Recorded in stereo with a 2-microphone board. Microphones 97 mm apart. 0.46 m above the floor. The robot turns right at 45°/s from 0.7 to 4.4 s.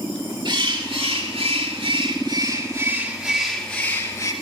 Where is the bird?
130° right, 4 m; by 4.3 s 35° left, 4 m.